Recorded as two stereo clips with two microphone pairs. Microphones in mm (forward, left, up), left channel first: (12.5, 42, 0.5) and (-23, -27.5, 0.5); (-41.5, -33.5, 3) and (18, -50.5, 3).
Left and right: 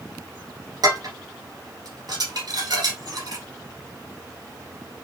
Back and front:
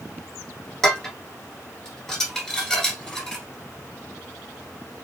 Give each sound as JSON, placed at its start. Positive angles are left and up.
{"t": 0.8, "sound": "dishes clattering", "azimuth_deg": -115, "distance_m": 1.6}